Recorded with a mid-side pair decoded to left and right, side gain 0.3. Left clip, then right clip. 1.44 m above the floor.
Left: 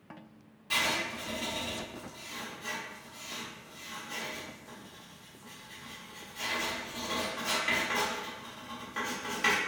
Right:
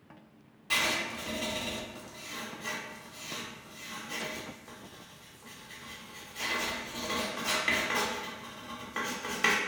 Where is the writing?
50° right, 1.2 m.